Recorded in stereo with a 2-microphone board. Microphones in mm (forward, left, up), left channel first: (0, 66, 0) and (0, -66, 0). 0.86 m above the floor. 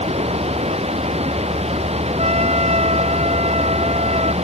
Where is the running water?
50° right (ahead or behind).